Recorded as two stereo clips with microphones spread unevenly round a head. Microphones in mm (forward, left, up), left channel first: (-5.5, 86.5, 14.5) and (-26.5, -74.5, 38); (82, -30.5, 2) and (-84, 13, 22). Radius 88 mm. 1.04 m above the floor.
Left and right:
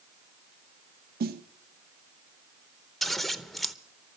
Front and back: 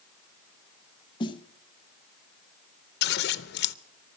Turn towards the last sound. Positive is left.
turn(degrees=-5)